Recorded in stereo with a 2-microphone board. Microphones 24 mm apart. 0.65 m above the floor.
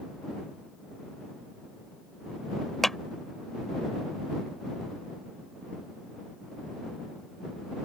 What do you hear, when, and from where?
2.8 s a clap: 10° left (ahead or behind)